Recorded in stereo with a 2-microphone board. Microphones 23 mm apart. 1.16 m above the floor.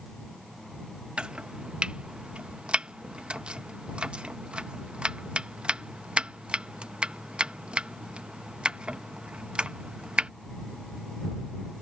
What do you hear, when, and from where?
1.2 s chopping: 50° right (ahead or behind)